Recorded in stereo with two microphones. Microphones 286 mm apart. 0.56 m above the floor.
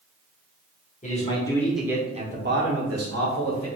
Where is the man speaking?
25° left (ahead or behind), 1.5 m; by 3.7 s 70° right (ahead or behind), 1.9 m.